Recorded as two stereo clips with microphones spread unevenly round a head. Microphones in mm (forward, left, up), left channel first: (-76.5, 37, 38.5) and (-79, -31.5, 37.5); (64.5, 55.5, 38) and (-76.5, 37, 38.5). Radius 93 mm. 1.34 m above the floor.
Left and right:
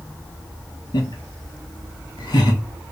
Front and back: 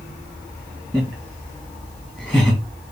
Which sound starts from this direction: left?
Laughter, at 0.9 s.